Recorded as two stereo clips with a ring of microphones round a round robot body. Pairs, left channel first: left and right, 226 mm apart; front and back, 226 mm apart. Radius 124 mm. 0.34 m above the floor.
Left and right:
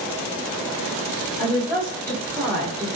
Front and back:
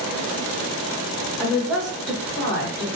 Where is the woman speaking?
105° left, 1.5 m; by 3.0 s 45° right, 1.4 m.